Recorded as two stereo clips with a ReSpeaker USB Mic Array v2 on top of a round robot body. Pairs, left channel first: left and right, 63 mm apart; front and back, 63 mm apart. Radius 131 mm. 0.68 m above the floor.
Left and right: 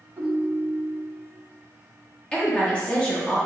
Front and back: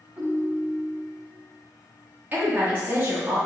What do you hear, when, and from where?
0.2 s a ringtone: 115° right, 1.5 m
2.3 s a woman speaking: 145° left, 1.1 m